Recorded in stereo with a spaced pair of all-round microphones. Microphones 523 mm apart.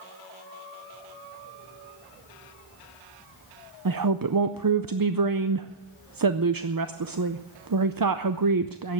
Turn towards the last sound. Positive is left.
turn(degrees=-40)  # may be behind; listen again after turning